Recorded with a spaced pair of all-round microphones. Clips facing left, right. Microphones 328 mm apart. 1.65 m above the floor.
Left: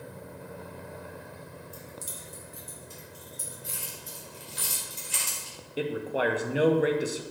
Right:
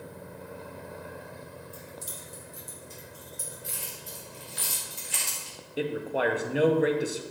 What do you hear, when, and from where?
1.7 s keys jangling: 55° left (ahead or behind), 1.5 m; by 4.6 s 70° left (ahead or behind), 4.5 m
3.6 s keys jangling: 55° left (ahead or behind), 3 m
5.8 s a man speaking: centre (ahead or behind), 0.7 m